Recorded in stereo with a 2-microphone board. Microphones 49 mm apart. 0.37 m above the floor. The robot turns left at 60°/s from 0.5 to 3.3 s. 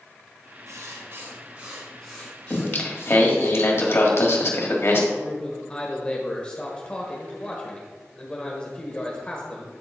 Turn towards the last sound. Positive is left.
turn(degrees=20)  # may be behind; listen again after turning